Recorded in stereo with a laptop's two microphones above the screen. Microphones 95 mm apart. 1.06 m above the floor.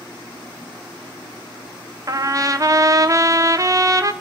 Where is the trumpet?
35° right (ahead or behind), 1.1 m.